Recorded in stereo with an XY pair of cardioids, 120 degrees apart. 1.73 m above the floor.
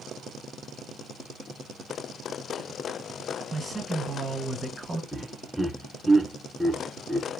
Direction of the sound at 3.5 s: 15° right.